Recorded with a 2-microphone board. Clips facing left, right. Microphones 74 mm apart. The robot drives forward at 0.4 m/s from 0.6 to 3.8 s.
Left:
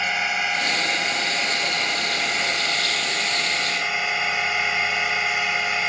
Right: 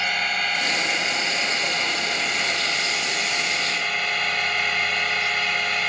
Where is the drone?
10° left (ahead or behind).